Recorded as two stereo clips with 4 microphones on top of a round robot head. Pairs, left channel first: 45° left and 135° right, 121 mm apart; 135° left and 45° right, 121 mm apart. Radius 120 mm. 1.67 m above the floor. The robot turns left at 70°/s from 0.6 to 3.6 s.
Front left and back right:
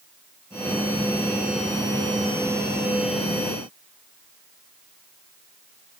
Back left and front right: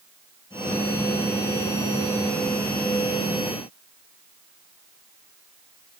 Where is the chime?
No chime in this recording.